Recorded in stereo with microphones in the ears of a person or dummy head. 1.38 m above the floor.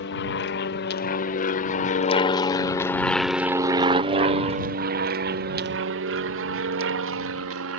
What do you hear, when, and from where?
0.0 s an aircraft: 55° left (ahead or behind); by 7.8 s 65° right (ahead or behind)